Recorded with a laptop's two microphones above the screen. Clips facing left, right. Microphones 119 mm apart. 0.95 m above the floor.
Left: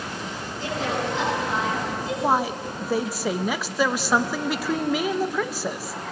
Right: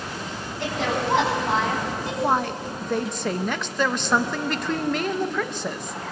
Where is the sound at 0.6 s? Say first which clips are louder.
Right 1 dB; 65° right (ahead or behind), 8 m.